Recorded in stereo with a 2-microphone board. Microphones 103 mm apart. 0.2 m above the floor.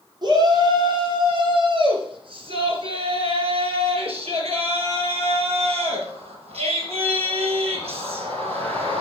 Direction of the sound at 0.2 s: 45° right (ahead or behind).